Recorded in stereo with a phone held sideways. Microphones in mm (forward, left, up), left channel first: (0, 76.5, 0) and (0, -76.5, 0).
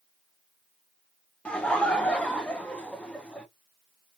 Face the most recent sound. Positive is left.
turn(degrees=5)  # may be behind; listen again after turning